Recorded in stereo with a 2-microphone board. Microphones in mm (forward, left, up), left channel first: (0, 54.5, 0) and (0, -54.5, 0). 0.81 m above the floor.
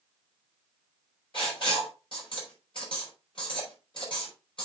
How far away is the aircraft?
No aircraft in this recording.